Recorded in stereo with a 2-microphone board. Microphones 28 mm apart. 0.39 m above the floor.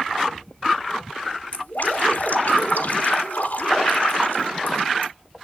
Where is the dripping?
85° left, 1.5 m.